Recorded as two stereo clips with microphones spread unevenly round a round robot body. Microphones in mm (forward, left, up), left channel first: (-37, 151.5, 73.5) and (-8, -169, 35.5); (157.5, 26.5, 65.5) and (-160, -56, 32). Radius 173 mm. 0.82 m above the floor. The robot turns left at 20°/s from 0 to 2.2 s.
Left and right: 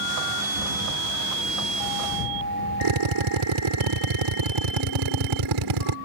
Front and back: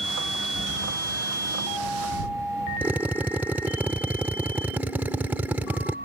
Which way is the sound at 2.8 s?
80° right.